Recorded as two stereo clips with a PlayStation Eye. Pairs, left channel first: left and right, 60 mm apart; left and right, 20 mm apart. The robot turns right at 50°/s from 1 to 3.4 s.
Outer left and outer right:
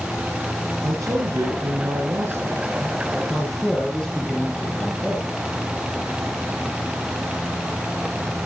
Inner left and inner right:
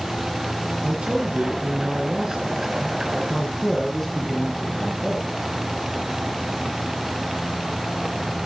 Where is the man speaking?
110° right, 6.5 m; by 5.2 s 10° left, 6.5 m.